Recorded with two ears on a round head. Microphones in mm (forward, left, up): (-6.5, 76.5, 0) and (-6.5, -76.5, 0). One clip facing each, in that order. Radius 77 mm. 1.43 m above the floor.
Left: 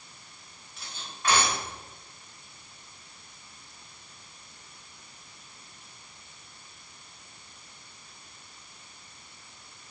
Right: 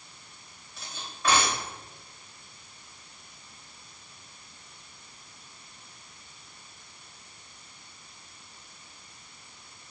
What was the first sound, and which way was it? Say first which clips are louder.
Cutlery clinking: right 2 dB; 75° right (ahead or behind).